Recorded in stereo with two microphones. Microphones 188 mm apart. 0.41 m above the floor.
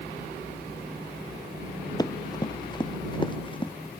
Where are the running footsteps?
20° left (ahead or behind); by 3.7 s 25° left (ahead or behind).